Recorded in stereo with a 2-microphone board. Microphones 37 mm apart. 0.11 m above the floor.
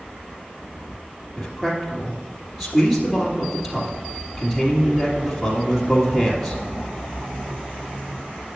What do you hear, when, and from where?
1.4 s a man speaking: centre (ahead or behind), 2.5 m